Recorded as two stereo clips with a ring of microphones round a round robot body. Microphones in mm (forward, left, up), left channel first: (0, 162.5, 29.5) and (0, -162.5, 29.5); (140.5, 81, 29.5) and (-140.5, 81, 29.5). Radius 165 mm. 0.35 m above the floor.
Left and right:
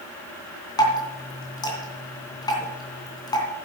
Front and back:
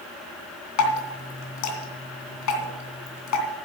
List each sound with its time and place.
0.8 s dripping: 15° left, 3 m